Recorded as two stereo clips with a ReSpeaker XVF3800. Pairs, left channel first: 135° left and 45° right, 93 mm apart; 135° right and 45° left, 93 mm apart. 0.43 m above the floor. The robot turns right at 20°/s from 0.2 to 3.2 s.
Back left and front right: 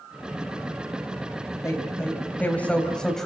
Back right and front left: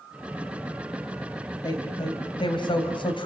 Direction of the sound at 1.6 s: 170° right.